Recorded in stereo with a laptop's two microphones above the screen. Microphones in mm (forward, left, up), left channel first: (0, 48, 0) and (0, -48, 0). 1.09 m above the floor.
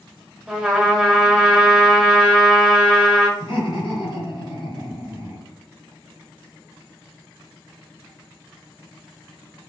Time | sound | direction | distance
0.5 | a trumpet | 10° right (ahead or behind) | 1.2 m
3.4 | laughter | 55° left (ahead or behind) | 1.4 m